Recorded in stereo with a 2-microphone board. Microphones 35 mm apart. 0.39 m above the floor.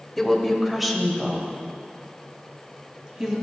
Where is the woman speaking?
5° left (ahead or behind), 1.7 m; by 3.3 s 15° right (ahead or behind), 3.5 m.